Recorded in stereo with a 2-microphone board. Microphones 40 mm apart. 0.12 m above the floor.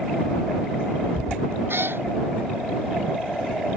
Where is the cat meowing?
75° right (ahead or behind).